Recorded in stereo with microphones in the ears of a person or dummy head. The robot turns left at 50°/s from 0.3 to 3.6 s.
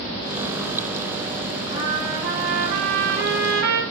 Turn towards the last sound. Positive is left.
turn(degrees=-115)